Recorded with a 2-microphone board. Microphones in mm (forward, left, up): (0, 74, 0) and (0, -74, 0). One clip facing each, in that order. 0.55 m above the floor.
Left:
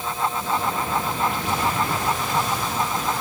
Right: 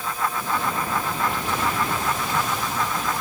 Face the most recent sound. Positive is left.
No sound to turn to.